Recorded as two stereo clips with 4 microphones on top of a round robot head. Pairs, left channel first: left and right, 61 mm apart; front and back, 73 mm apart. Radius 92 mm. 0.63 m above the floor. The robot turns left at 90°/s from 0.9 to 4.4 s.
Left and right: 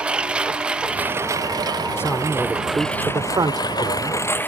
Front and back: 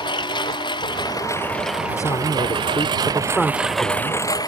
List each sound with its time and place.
0.0 s a lawn mower: 15° right; by 4.5 s 35° left
2.0 s a man speaking: 45° left; by 4.2 s 155° right